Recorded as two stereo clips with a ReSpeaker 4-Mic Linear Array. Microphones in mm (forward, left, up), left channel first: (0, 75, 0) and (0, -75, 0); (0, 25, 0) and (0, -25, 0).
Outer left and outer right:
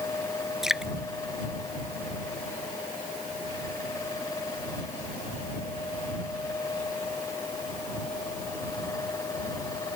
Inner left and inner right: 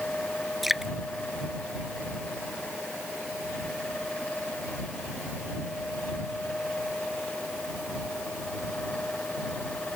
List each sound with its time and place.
0.6 s dripping: centre (ahead or behind)